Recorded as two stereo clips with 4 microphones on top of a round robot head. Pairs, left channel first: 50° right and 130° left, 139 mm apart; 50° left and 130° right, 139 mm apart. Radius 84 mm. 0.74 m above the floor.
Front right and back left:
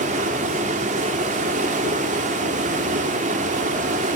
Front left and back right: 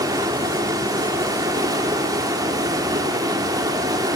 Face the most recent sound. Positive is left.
turn(degrees=165)